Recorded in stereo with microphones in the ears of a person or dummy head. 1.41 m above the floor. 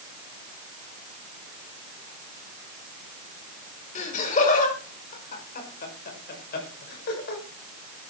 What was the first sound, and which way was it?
Laughter, 40° left (ahead or behind).